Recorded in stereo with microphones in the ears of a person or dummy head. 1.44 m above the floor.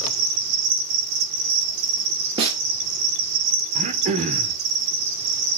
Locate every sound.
0.0 s an insect: 65° right (ahead or behind), 2 m
2.4 s a snare drum: 35° right (ahead or behind), 1.9 m
3.8 s throat clearing: 35° right (ahead or behind), 0.8 m